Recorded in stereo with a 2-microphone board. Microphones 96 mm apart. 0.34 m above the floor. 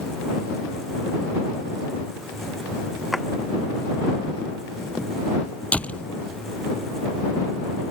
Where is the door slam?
15° left (ahead or behind).